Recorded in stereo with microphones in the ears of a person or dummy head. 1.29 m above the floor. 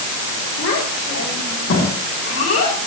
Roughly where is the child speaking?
Left.